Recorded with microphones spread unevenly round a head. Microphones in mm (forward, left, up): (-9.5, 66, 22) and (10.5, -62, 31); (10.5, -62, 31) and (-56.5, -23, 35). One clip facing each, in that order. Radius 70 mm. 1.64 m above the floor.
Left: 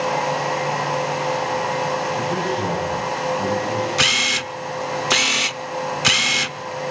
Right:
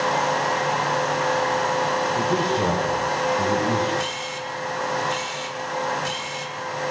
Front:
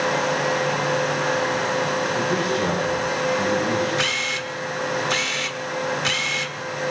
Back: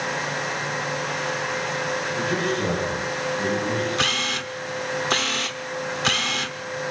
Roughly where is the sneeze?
No sneeze in this recording.